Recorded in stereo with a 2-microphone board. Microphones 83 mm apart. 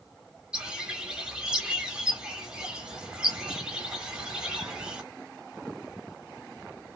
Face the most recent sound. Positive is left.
turn(degrees=-10)  # may be behind; listen again after turning